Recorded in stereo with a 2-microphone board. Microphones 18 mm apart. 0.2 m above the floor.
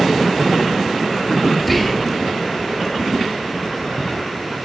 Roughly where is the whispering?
Centre.